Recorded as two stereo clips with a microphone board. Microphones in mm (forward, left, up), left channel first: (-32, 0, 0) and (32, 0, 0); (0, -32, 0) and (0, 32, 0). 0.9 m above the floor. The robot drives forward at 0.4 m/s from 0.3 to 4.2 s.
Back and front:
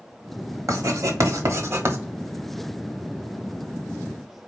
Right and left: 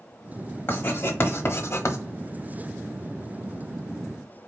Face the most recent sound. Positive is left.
turn(degrees=-110)